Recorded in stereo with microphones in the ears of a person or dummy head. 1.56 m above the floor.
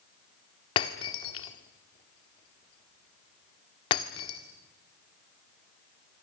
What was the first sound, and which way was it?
Breaking glass, 25° left (ahead or behind).